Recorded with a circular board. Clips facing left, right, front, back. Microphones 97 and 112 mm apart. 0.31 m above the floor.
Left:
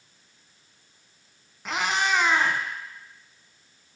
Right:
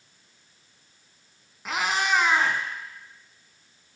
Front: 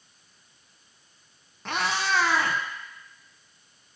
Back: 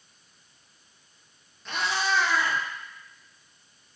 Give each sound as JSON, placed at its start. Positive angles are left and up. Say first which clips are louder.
{"t": 1.6, "sound": "a cat meowing", "louder": "even, front 1 dB", "azimuth_deg": 0, "distance_m": 0.9}